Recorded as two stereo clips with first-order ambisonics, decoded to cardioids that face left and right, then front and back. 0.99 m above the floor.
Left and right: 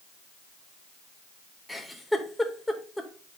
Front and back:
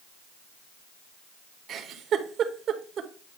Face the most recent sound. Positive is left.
turn(degrees=175)